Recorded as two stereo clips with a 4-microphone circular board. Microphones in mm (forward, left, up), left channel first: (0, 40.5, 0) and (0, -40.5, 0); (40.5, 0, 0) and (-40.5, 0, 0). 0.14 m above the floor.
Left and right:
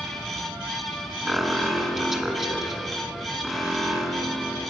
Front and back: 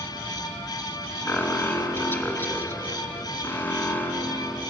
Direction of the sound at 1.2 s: 10° right.